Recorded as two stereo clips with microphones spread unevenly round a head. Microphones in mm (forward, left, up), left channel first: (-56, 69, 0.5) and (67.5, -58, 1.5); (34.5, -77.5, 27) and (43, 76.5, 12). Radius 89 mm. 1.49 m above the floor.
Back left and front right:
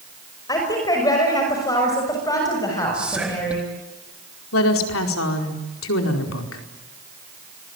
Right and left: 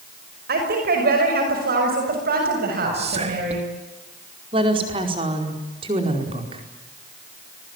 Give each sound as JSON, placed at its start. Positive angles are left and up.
{"t": 0.5, "sound": "a woman speaking", "azimuth_deg": 65, "distance_m": 5.5}
{"t": 2.9, "sound": "whispering", "azimuth_deg": 40, "distance_m": 1.7}
{"t": 4.5, "sound": "a woman speaking", "azimuth_deg": 150, "distance_m": 4.5}